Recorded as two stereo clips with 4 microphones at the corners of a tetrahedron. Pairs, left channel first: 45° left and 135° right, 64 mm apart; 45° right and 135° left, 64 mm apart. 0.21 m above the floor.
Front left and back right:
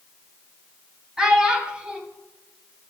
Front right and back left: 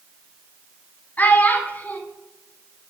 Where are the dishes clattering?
I don't hear dishes clattering.